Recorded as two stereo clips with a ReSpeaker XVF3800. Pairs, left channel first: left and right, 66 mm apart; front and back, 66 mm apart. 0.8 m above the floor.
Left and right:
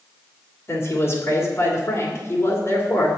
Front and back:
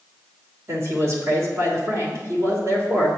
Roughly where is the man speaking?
Behind left.